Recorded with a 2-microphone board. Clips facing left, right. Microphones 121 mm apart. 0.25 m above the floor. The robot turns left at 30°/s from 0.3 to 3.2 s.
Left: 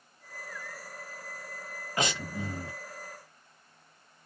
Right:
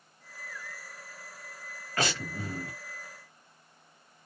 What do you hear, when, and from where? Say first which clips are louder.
2.0 s breathing: even; 15° left (ahead or behind), 1.1 m; by 2.8 s 25° left (ahead or behind), 1.1 m